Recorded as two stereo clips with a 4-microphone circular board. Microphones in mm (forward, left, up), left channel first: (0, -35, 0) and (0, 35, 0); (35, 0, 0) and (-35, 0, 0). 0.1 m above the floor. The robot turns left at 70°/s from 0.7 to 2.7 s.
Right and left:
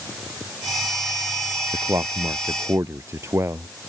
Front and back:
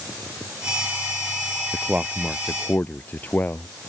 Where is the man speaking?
125° left; by 3.7 s 60° left.